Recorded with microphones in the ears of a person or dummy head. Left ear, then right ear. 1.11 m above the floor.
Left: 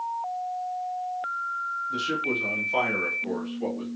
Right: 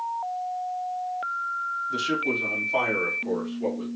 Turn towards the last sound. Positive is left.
turn(degrees=35)  # may be behind; listen again after turning